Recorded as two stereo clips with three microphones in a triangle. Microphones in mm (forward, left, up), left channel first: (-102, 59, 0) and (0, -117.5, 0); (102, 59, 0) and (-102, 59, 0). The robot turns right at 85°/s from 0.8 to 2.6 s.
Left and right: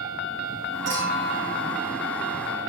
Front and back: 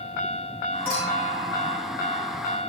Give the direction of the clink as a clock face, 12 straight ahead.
3 o'clock.